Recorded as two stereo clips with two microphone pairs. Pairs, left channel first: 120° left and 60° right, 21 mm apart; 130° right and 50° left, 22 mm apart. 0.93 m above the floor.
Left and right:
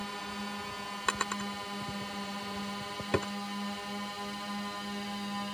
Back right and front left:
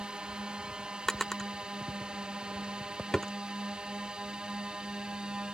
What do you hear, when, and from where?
0.0 s a drone: 45° left; by 5.5 s 30° left
1.1 s a drawer: 165° left